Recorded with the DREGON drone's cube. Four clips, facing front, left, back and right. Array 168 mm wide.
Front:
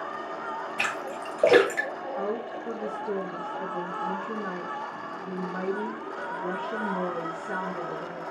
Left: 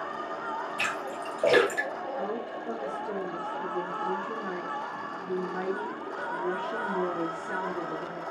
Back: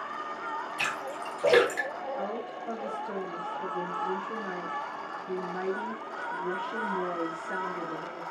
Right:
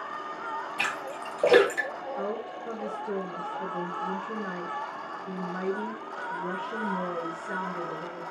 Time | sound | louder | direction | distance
0.8 | a splash | even, front 2 dB | 10° right | 3 m
2.2 | a woman speaking | even, front 3 dB | 5° left | 5.5 m